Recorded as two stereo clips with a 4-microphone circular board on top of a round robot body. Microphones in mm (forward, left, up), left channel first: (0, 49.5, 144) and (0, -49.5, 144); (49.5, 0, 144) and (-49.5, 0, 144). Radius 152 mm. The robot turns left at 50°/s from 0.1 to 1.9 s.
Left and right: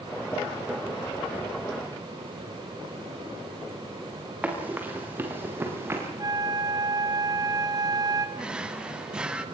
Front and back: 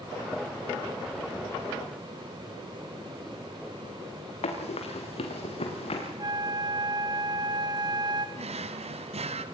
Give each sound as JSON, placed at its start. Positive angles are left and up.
{"t": 4.4, "sound": "running footsteps", "azimuth_deg": -15, "distance_m": 5.5}
{"t": 6.2, "sound": "a flute", "azimuth_deg": -135, "distance_m": 1.2}
{"t": 8.4, "sound": "a drawer", "azimuth_deg": -170, "distance_m": 1.2}